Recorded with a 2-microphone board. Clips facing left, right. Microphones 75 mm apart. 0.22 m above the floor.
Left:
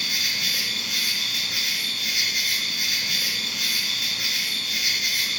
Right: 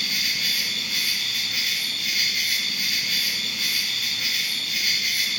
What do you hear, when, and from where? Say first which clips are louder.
0.0 s an insect: even; 75° left (ahead or behind), 1.3 m